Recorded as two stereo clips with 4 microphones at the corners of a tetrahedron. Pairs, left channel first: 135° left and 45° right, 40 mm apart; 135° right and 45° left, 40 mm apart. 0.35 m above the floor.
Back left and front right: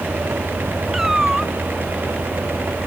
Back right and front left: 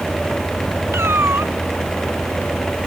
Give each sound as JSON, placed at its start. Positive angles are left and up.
{"t": 0.9, "sound": "a cat meowing", "azimuth_deg": 40}